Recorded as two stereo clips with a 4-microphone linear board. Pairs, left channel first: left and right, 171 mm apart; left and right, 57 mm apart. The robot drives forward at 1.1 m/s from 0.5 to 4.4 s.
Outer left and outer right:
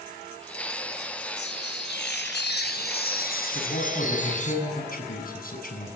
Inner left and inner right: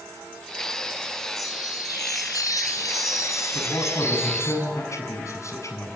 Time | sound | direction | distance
1.4 | a chime | 80° left | 3 m
3.5 | a man speaking | 65° left (ahead or behind) | 6.5 m